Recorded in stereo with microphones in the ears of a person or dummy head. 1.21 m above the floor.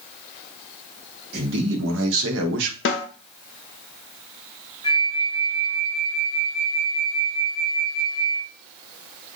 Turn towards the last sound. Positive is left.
turn(degrees=25)  # may be behind; listen again after turning